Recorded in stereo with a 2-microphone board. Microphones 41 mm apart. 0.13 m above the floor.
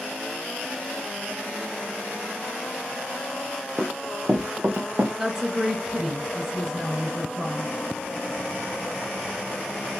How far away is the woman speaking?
About 1.6 m.